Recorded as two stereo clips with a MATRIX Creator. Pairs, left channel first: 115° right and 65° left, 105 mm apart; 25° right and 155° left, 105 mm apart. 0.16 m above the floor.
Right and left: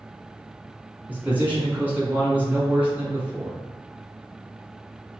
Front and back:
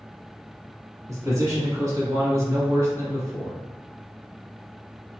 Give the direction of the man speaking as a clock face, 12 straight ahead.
8 o'clock.